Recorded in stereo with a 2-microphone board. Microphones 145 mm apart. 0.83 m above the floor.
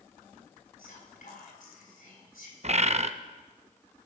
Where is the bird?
50° right (ahead or behind), 0.5 m.